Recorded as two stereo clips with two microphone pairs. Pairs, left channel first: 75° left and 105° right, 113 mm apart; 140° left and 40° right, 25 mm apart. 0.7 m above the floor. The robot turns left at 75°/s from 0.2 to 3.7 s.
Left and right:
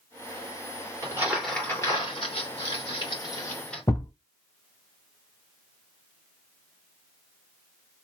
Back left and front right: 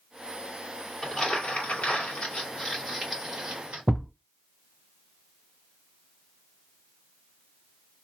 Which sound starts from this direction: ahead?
A thud, at 3.9 s.